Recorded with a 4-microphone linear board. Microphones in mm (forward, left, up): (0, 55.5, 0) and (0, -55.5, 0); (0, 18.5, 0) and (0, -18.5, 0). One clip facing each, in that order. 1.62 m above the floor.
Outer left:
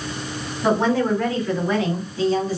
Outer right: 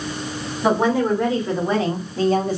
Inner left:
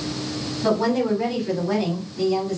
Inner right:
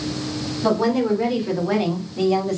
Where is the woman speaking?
10° right (ahead or behind), 1.3 m; by 2.6 s 55° right (ahead or behind), 0.8 m.